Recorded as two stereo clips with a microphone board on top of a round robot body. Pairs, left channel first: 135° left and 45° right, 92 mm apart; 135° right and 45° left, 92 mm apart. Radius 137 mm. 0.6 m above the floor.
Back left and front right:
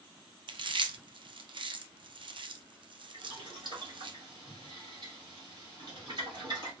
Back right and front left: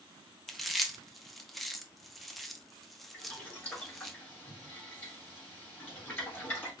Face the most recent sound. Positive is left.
turn(degrees=-70)